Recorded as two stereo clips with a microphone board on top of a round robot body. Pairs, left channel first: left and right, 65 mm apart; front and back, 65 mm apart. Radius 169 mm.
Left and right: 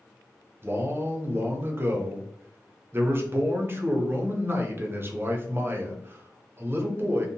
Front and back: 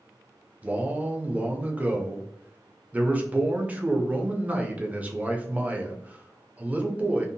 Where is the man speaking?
125° right, 0.8 m.